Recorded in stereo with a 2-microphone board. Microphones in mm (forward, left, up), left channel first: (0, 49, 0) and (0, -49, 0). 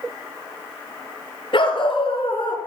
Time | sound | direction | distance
1.5 | a dog barking | 55° left (ahead or behind) | 2.5 m